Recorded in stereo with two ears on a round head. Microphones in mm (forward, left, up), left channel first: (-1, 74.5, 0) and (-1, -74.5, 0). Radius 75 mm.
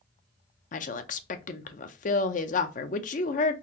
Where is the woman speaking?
50° left (ahead or behind), 0.6 m.